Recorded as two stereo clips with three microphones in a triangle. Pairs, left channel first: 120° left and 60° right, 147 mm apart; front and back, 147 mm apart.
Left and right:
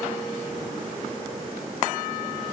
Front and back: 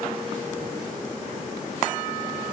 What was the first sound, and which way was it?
Only background noise.